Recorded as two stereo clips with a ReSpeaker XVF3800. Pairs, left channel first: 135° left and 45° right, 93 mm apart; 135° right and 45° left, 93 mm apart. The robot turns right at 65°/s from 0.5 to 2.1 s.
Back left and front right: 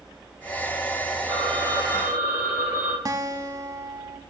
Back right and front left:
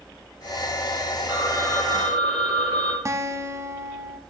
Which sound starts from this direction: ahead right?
A phone ringing, at 1.3 s.